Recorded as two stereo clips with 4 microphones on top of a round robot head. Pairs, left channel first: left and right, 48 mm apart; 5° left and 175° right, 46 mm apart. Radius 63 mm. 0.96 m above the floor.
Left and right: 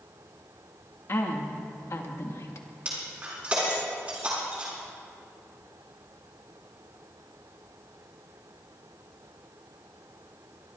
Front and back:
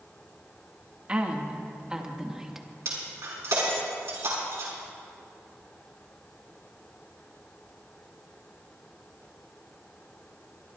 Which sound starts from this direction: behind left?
A woman speaking, at 1.1 s.